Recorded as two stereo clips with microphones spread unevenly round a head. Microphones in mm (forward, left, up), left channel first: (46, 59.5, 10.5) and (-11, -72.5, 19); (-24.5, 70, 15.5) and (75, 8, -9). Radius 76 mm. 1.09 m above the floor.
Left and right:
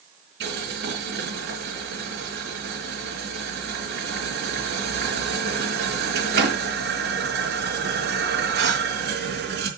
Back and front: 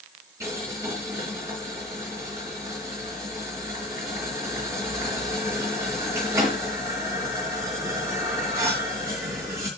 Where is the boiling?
105° right, 3.5 m.